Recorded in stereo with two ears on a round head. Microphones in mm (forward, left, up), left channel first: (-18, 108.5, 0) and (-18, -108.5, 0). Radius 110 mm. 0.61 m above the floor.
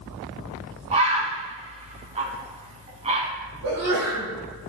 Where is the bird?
25° right (ahead or behind), 1.6 m.